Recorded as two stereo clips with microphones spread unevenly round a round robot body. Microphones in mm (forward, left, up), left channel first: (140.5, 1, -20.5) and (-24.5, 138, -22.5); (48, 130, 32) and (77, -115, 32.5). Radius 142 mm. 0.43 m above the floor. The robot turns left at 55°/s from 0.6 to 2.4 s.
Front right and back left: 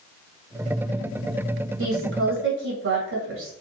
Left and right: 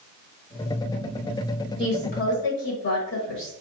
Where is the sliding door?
I don't hear a sliding door.